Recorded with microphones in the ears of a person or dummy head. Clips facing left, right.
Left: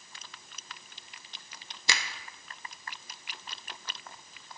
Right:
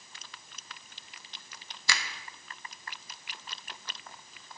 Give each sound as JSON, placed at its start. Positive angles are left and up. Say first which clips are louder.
{"t": 1.9, "sound": "a finger snap", "louder": "left 1 dB", "side_deg": 20, "distance_m": 0.7}